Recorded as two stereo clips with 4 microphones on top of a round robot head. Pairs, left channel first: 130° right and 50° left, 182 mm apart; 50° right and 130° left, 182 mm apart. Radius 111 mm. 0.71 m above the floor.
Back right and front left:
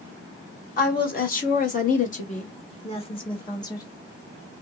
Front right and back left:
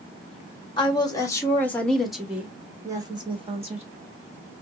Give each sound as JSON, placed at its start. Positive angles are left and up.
{"t": 0.8, "sound": "a woman speaking", "azimuth_deg": -110, "distance_m": 1.7}